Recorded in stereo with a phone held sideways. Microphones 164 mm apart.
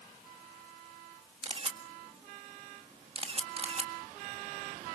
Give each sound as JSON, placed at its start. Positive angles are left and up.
{"t": 1.4, "sound": "a camera shutter", "side_deg": -35, "distance_m": 1.7}